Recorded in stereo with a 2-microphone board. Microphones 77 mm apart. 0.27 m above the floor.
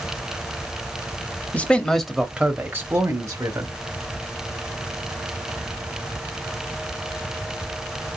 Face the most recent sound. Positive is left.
turn(degrees=-45)  # may be behind; listen again after turning